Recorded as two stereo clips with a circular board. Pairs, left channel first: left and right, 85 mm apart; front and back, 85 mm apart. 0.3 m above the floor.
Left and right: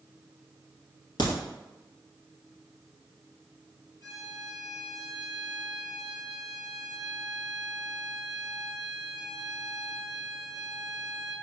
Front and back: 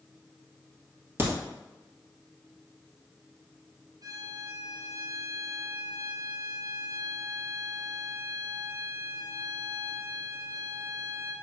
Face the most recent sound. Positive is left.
turn(degrees=135)